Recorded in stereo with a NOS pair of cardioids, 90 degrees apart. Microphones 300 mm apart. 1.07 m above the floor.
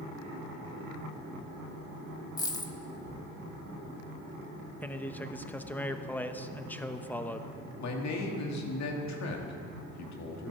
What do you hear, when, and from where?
2.4 s a dropped coin: 15° left, 1.1 m
4.8 s a man speaking: 5° left, 0.9 m
7.8 s a man speaking: 65° left, 2 m